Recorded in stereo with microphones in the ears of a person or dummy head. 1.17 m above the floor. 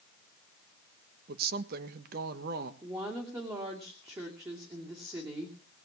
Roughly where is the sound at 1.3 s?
Right.